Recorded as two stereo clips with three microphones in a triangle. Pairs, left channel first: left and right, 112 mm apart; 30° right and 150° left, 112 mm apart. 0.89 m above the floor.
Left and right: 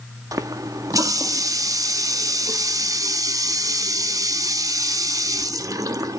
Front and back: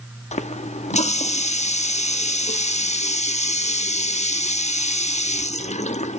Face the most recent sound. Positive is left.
turn(degrees=-30)